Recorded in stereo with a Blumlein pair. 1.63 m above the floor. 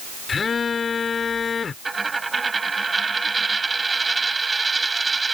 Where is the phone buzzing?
15° left.